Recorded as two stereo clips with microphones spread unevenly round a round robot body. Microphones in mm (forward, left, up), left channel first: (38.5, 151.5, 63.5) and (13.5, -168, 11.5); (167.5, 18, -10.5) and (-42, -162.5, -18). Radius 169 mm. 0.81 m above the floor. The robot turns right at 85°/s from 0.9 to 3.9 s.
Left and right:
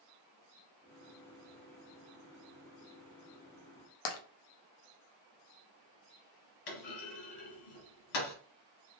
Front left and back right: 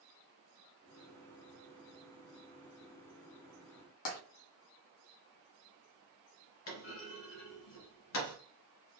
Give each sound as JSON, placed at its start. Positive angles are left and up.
{"t": 4.0, "sound": "tapping", "azimuth_deg": 80, "distance_m": 0.7}
{"t": 6.7, "sound": "a clunk", "azimuth_deg": 80, "distance_m": 1.8}